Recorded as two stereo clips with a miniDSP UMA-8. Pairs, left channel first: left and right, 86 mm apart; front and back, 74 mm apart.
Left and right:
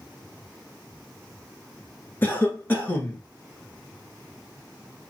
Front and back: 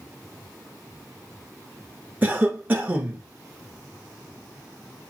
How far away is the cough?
About 1.2 m.